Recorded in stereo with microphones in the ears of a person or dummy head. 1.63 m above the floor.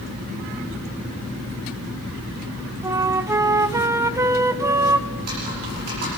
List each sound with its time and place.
2.8 s a flute: 15° right (ahead or behind), 0.8 m
5.1 s typing on a keyboard: 50° right (ahead or behind), 8.5 m